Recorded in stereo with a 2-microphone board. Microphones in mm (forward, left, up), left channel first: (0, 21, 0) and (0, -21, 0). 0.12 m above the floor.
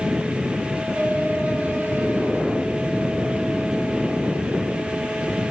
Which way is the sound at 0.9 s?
50° right (ahead or behind).